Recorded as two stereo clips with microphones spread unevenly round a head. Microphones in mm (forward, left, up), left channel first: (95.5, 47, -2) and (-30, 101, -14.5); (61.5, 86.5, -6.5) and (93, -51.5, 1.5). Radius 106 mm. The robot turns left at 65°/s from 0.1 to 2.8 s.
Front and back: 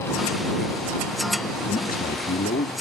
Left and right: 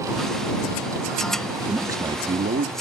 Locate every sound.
1.7 s a man speaking: 5° left; by 2.7 s 60° right